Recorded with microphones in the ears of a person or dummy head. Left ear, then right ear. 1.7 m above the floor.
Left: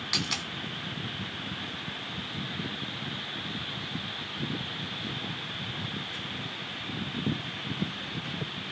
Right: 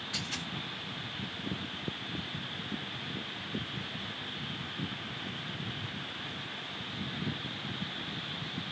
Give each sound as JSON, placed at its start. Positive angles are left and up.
{"t": 0.1, "sound": "a dropped coin", "side_deg": 45, "distance_m": 1.4}